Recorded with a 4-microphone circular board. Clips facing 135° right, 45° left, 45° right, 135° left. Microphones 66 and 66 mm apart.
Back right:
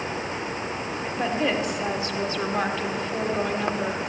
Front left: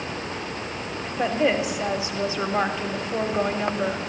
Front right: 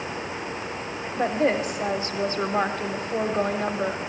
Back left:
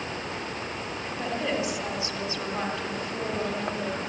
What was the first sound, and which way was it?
A woman speaking, 30° right.